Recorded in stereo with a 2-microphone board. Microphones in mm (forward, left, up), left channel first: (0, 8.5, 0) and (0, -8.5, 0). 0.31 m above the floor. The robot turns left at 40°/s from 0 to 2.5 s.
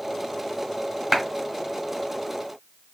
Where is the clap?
20° right (ahead or behind), 2 m; by 1.2 s 15° right (ahead or behind), 2 m.